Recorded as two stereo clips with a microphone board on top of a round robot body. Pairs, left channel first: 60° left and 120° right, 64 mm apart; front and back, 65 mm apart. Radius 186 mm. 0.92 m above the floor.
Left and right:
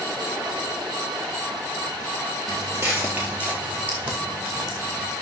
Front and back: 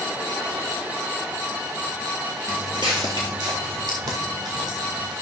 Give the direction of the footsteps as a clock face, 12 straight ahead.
5 o'clock.